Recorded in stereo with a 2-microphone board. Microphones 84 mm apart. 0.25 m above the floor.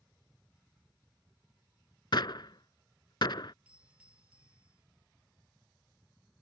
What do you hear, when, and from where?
2.1 s a gunshot: 65° left (ahead or behind)
3.6 s a doorbell: 15° right (ahead or behind)